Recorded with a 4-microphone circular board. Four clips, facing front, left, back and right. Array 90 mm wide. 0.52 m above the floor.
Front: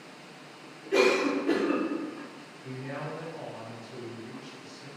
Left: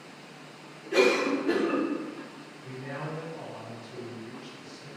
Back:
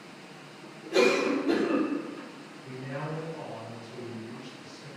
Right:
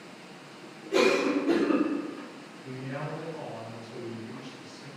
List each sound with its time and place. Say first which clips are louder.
0.9 s a cough: even, even; 25° left, 1.6 m
2.6 s a man speaking: right 1 dB, even; 40° left, 1.9 m